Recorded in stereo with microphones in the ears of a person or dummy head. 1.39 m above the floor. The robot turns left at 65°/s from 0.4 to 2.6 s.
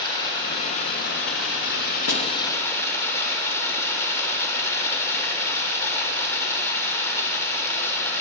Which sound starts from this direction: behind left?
Running water, at 0.0 s.